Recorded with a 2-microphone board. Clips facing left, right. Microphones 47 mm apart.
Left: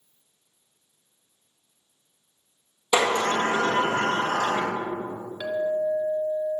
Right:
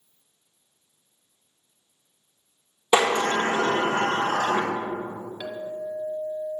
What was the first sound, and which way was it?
A sliding door, 35° right (ahead or behind).